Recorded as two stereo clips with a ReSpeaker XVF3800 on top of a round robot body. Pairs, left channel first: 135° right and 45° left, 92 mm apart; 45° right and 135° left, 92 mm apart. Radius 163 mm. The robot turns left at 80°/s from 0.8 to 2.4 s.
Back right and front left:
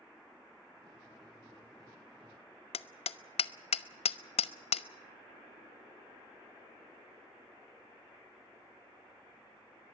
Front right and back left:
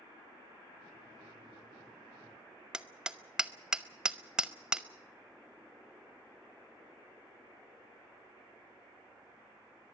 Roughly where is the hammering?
Behind right.